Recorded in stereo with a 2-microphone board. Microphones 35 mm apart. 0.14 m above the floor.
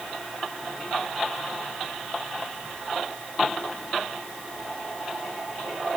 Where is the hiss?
No hiss in this recording.